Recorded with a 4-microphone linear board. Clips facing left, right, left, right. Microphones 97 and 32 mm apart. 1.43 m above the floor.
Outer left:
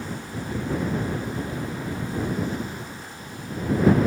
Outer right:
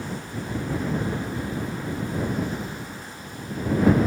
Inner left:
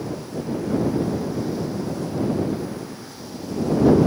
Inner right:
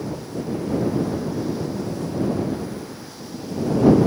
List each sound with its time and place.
Only background noise.